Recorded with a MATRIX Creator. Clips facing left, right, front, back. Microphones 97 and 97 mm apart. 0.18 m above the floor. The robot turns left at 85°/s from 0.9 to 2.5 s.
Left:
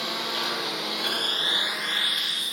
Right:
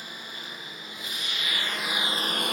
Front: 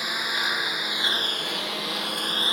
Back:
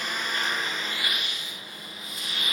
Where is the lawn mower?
85° left; by 2.5 s 60° right.